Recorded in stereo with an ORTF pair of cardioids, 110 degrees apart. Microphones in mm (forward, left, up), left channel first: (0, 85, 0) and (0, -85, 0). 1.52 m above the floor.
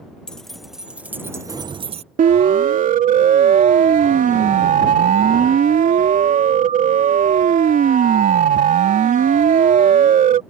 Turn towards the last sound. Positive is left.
turn(degrees=-50)